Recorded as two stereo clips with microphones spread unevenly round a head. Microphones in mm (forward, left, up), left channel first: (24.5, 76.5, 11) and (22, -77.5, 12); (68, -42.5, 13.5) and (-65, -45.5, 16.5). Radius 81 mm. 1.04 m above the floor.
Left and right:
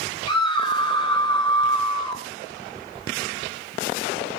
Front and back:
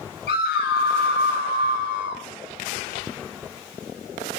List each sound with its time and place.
0.3 s a scream: 30° left, 8.5 m